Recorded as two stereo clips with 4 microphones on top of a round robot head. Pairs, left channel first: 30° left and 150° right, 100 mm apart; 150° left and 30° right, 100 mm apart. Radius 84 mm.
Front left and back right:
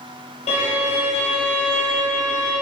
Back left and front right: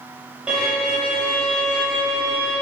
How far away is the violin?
About 4 m.